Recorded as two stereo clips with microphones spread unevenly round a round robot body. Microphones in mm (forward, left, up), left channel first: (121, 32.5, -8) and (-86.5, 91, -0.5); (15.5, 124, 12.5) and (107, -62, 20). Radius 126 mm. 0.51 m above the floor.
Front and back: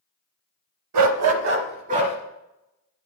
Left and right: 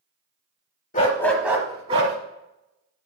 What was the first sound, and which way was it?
A dog barking, straight behind.